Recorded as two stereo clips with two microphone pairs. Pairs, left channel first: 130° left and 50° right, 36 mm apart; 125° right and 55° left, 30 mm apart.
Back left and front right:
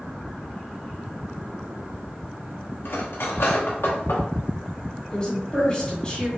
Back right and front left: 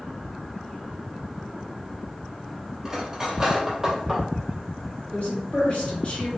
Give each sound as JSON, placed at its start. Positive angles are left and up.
{"t": 2.9, "sound": "cutlery clinking", "azimuth_deg": 130, "distance_m": 1.0}
{"t": 5.1, "sound": "a woman speaking", "azimuth_deg": -170, "distance_m": 1.9}